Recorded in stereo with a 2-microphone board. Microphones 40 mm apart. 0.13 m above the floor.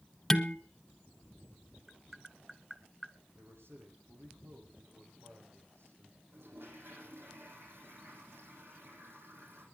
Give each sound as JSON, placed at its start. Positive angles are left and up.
{"t": 0.3, "sound": "dishes clattering", "side_deg": 10, "distance_m": 1.1}
{"t": 1.9, "sound": "tapping", "side_deg": -10, "distance_m": 0.7}
{"t": 3.4, "sound": "a man speaking", "side_deg": -75, "distance_m": 7.5}
{"t": 6.3, "sound": "a toilet flushing", "side_deg": -65, "distance_m": 6.5}